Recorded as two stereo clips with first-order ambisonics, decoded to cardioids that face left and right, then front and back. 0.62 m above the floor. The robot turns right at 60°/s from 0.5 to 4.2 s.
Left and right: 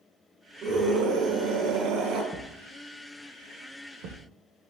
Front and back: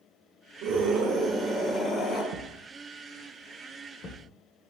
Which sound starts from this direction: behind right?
A scream, at 0.6 s.